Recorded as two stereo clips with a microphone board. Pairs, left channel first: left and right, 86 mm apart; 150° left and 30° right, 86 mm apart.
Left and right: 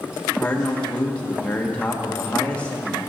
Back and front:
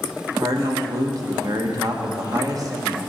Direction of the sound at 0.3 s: 15° left.